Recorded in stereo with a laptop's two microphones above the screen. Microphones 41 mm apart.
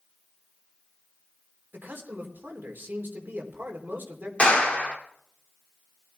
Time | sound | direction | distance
1.7 | a man speaking | 55° right (ahead or behind) | 3 m
4.4 | a clap | 25° left (ahead or behind) | 2 m